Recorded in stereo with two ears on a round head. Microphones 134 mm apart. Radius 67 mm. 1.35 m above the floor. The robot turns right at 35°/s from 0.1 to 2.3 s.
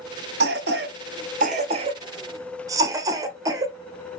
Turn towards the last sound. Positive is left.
turn(degrees=-25)  # may be behind; listen again after turning